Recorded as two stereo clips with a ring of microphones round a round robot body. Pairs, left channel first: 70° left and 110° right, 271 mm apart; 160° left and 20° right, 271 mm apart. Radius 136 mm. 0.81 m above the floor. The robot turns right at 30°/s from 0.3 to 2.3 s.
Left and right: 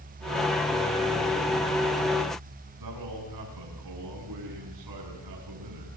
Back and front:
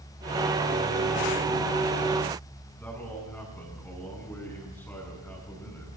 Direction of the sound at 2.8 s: 120° right.